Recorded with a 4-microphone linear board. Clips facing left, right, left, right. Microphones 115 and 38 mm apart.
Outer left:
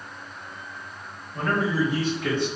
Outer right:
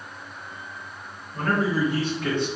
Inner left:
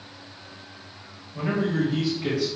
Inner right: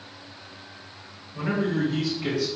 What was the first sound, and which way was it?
A man speaking, 20° left (ahead or behind).